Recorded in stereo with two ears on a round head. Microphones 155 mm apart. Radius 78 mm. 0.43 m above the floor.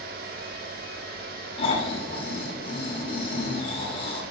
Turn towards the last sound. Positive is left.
turn(degrees=35)  # may be behind; listen again after turning